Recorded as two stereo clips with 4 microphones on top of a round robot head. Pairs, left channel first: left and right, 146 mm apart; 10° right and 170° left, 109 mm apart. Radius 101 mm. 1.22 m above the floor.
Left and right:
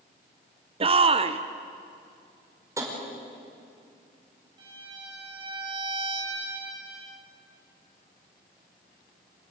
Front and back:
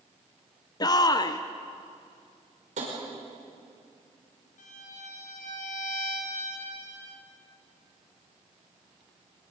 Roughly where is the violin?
Ahead right.